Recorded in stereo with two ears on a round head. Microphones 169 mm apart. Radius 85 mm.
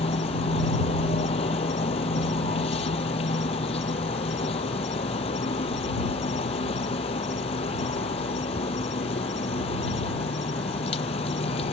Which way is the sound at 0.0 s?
30° left (ahead or behind).